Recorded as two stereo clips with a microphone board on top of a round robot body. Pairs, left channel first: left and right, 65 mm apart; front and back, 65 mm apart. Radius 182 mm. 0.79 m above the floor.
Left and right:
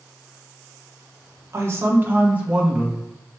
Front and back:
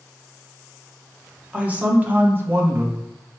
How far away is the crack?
I don't hear a crack.